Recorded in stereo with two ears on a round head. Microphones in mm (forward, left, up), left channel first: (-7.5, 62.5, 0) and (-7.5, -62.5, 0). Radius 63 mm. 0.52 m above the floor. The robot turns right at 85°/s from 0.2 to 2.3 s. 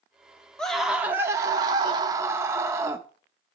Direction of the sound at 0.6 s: 5° left (ahead or behind).